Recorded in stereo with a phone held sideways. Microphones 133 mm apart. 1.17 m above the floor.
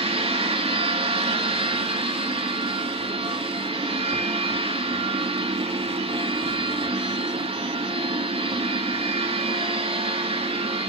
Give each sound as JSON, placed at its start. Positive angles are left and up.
{"t": 0.0, "sound": "a machine running", "side_deg": -45, "distance_m": 1.9}